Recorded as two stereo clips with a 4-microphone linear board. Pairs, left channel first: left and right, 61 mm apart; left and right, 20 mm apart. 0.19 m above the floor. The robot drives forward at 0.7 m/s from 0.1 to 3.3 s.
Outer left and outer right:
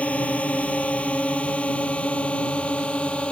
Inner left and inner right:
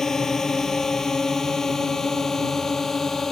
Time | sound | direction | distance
0.0 | a drone | 20° left (ahead or behind) | ?